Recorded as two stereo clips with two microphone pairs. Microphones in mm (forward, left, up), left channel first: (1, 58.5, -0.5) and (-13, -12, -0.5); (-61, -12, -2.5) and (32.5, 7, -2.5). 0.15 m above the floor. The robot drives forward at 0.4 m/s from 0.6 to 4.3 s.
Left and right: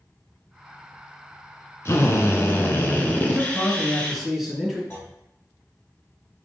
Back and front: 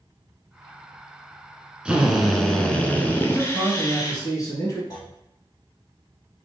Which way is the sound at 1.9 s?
85° left.